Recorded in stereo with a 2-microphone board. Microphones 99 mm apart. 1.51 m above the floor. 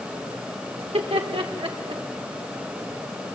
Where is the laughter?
85° right, 4 m; by 2.0 s 70° right (ahead or behind), 4 m.